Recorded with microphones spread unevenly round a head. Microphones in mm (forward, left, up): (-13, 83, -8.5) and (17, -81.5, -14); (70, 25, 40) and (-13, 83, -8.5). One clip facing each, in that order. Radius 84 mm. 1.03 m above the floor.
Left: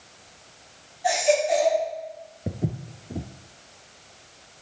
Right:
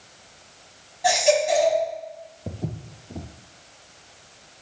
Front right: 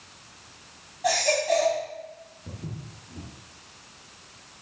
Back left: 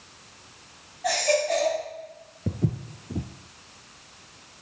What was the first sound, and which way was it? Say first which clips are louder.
A baby crying: right 2 dB, even; 105° right.